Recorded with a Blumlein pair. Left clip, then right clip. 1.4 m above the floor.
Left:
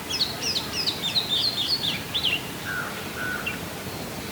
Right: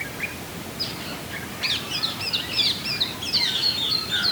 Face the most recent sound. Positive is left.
No sound to turn to.